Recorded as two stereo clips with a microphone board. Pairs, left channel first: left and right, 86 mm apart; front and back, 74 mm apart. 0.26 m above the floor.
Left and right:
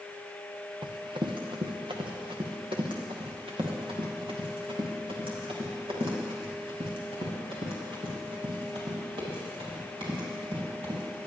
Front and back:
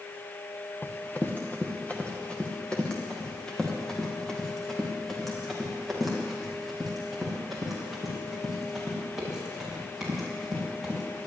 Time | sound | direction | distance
0.8 | running footsteps | 60° right | 2 m